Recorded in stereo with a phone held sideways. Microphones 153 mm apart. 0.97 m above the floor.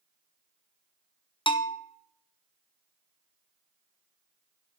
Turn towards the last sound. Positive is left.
turn(degrees=35)  # may be behind; listen again after turning